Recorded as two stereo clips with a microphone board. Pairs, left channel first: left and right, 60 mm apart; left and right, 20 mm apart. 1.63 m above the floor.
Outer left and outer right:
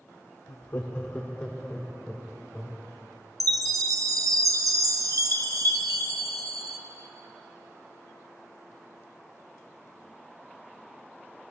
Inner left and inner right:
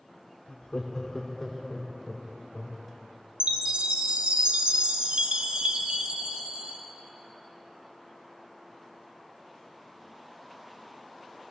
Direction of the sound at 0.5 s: 55° left (ahead or behind).